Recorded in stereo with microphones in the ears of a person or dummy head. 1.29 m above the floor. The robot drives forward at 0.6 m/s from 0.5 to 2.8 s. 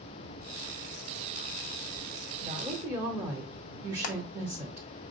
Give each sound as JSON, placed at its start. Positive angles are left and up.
{"t": 2.4, "sound": "a woman speaking", "side_deg": -15, "distance_m": 2.0}
{"t": 4.0, "sound": "hammering", "side_deg": 45, "distance_m": 1.0}